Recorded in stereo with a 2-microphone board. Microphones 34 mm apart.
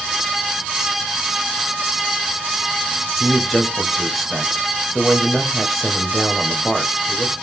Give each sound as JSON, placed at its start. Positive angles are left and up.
{"t": 3.2, "sound": "a man speaking", "side_deg": -5, "distance_m": 1.4}